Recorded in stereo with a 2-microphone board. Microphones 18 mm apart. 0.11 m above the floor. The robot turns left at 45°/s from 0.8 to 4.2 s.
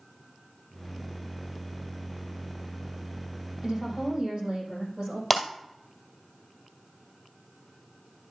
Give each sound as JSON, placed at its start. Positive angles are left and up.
{"t": 3.6, "sound": "a woman speaking", "side_deg": -45, "distance_m": 4.5}
{"t": 5.3, "sound": "breaking glass", "side_deg": -10, "distance_m": 1.9}